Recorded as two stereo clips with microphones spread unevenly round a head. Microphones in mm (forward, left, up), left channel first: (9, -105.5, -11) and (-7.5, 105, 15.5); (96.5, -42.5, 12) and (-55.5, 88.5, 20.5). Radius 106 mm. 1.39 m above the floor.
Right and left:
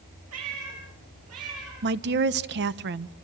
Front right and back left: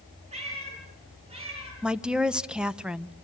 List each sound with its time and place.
0.3 s a cat meowing: 80° left, 9.5 m
1.8 s a woman speaking: 55° left, 0.9 m